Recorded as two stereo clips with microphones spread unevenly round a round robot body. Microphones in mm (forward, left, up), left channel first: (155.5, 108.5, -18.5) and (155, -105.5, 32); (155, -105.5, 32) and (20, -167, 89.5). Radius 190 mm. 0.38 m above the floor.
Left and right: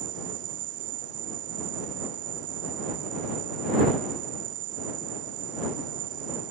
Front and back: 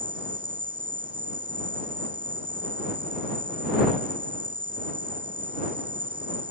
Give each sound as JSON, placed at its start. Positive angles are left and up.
{"t": 0.0, "sound": "an insect", "azimuth_deg": -90}